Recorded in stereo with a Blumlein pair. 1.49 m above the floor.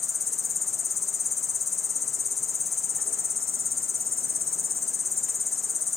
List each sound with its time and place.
0.0 s an insect: 15° left